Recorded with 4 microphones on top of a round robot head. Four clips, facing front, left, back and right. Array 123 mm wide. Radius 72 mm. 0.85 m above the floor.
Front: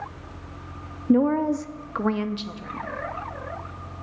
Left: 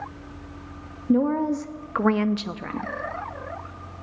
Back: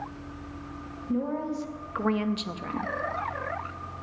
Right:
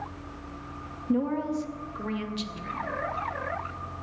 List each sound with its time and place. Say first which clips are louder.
1.1 s a woman speaking: left 6 dB, front 10 dB; 20° left, 0.8 m; by 2.9 s 120° left, 0.9 m